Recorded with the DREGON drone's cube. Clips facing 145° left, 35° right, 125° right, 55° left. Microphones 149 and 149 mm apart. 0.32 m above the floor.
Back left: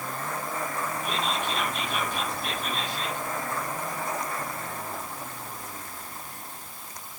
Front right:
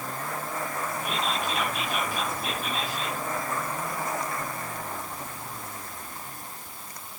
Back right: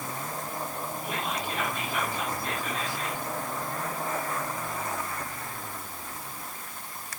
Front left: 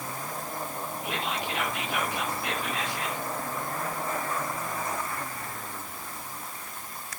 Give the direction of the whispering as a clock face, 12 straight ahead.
10 o'clock.